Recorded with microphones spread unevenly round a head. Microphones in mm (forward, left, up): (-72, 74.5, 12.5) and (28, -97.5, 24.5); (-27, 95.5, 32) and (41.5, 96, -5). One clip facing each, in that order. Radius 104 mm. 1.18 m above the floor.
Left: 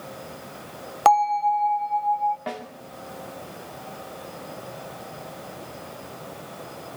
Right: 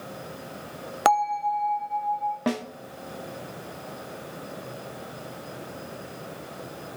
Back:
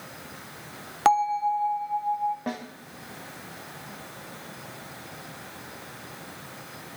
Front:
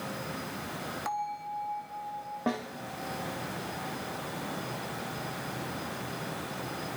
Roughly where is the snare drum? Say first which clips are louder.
Right 7 dB, front 2 dB; right.